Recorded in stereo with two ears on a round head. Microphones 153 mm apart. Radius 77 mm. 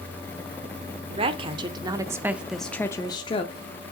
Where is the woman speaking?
35° right (ahead or behind), 1.2 m; by 3.6 s 35° left (ahead or behind), 0.9 m.